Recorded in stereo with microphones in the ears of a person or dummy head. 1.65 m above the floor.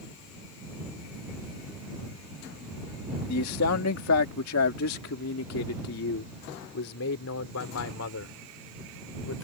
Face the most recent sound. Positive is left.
turn(degrees=75)  # may be behind; listen again after turning